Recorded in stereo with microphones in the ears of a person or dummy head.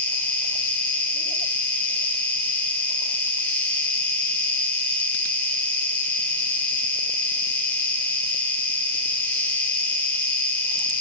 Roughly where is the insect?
Centre.